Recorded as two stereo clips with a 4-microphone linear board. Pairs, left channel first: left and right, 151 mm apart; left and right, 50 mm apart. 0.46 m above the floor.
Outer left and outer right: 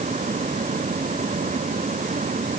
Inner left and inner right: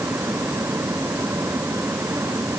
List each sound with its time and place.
Only background noise.